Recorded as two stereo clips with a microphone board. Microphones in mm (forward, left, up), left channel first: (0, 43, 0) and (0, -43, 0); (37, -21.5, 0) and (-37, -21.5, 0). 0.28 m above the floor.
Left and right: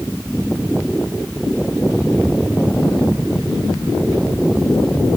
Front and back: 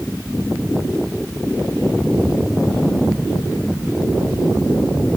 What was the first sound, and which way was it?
Only background noise.